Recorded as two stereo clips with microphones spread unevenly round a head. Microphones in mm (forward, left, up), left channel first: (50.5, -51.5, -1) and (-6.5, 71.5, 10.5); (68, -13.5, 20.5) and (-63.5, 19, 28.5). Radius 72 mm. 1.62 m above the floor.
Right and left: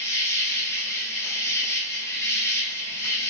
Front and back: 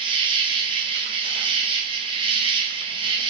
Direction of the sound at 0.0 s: 135° right.